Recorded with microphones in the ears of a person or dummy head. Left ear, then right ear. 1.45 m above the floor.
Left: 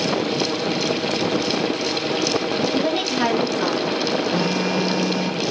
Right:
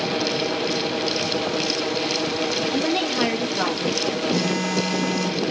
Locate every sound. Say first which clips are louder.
2.7 s a woman speaking: left 1 dB; 20° right (ahead or behind), 3 m; by 4.0 s 60° right (ahead or behind), 2.5 m
4.3 s a phone buzzing: left 2 dB; 65° right (ahead or behind), 8 m